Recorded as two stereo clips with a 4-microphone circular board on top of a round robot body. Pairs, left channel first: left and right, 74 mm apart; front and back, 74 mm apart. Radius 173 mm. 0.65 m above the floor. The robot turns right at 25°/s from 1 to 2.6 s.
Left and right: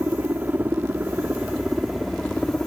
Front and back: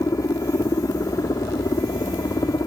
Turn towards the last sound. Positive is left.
turn(degrees=15)